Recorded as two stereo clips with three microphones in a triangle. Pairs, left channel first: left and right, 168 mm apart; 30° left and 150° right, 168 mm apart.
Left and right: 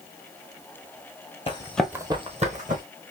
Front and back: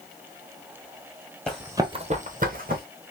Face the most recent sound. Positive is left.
turn(degrees=-125)